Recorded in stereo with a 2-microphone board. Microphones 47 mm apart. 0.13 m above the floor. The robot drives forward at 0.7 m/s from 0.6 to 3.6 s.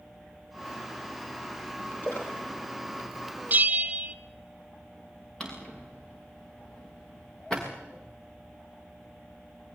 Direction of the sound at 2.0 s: 50° left (ahead or behind).